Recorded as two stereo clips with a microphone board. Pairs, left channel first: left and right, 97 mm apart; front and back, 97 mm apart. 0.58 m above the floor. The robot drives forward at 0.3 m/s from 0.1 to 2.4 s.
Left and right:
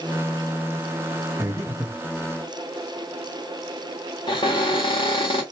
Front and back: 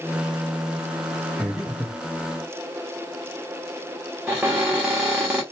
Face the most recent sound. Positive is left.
turn(degrees=105)